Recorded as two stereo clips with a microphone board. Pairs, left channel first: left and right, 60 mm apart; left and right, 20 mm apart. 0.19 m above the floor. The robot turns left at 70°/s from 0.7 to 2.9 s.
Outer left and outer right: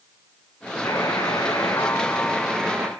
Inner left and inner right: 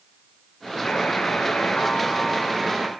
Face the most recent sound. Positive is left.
turn(degrees=-35)